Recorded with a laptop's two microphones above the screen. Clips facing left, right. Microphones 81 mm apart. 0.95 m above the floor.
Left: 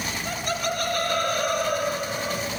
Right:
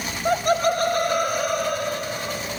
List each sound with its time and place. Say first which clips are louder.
0.2 s laughter: right 10 dB; 60° right (ahead or behind), 1.1 m; by 2.5 s 10° left (ahead or behind), 3 m